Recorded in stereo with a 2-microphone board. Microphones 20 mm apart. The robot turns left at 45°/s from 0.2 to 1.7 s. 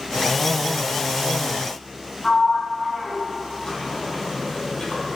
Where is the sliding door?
35° left (ahead or behind), 2 m.